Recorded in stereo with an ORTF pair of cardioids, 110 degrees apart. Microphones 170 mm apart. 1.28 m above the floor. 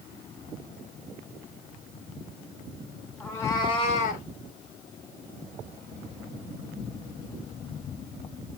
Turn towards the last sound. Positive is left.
turn(degrees=60)